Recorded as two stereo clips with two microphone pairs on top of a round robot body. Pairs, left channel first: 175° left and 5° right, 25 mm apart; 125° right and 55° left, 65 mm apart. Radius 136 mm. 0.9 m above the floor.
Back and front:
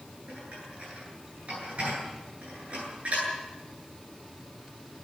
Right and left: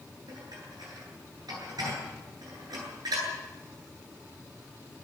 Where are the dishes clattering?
40° left, 10 m.